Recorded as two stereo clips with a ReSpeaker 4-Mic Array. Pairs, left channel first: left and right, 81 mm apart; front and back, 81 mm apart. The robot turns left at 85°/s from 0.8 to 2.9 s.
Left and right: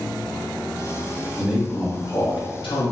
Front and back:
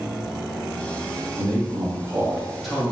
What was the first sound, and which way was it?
A man speaking, 165° right.